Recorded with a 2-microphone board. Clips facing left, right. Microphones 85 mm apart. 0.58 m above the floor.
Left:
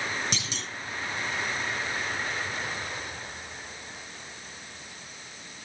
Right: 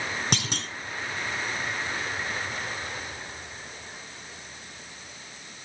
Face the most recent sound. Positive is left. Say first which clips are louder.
# right 5 dB
turn(degrees=-55)  # may be behind; listen again after turning